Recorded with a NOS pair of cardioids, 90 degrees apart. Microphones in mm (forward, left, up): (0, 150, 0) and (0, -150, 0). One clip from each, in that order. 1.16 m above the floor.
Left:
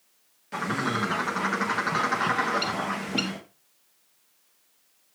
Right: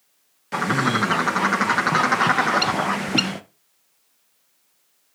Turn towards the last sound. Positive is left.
turn(degrees=-30)